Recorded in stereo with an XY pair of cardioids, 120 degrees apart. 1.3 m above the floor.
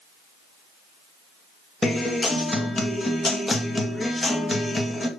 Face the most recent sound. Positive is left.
turn(degrees=20)